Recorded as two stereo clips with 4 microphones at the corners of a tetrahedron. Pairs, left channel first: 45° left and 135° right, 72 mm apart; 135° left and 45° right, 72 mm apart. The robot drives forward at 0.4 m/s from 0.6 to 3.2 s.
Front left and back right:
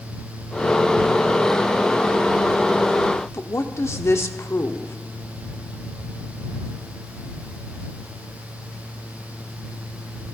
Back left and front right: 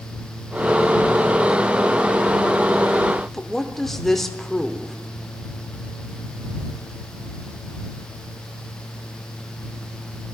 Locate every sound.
3.3 s a woman speaking: 55° left, 0.9 m